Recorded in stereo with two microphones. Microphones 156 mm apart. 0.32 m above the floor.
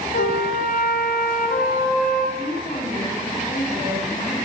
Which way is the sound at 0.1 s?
70° left (ahead or behind).